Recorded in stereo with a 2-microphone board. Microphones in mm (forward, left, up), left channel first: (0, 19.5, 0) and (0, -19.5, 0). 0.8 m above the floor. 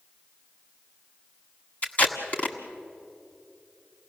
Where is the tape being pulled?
35° left (ahead or behind), 1.7 m.